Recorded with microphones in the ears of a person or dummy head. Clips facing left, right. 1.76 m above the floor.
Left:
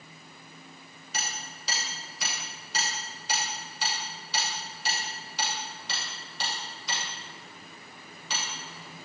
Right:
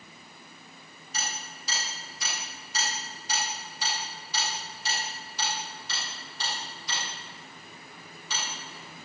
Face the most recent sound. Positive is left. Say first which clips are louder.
# even
turn(degrees=60)  # may be behind; listen again after turning